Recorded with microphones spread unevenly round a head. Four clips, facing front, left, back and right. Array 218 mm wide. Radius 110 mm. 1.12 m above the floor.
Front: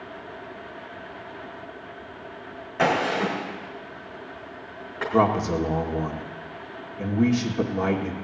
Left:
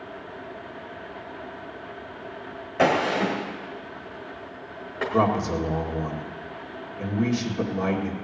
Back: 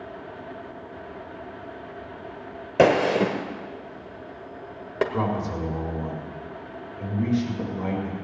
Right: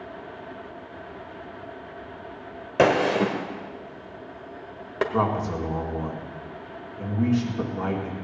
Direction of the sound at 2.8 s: 150° right.